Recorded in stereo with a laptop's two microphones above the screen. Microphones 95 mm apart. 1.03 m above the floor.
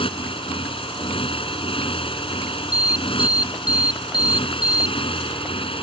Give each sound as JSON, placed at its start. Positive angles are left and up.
{"t": 0.0, "sound": "a motorcycle", "side_deg": 70}
{"t": 2.7, "sound": "an alarm", "side_deg": 45}